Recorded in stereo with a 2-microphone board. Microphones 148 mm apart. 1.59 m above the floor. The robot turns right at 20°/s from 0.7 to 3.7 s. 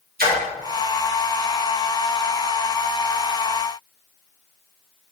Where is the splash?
65° right (ahead or behind), 0.8 m.